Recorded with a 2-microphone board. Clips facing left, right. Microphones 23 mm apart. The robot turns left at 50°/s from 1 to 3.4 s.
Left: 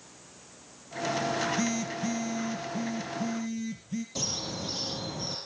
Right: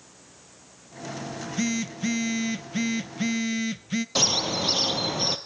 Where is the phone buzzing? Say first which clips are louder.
Even; 5° right, 0.7 m; by 4.0 s 110° right, 0.7 m.